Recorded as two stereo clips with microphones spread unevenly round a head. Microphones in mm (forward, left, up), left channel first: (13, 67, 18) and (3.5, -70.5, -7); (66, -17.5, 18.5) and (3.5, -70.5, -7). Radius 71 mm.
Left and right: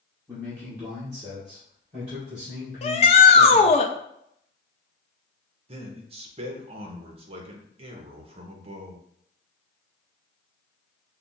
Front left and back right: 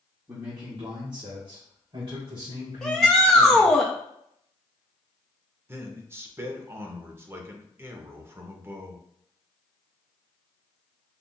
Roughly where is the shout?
Behind left.